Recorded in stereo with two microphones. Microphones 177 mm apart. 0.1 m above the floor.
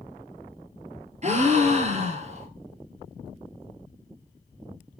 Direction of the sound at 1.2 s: 40° right (ahead or behind).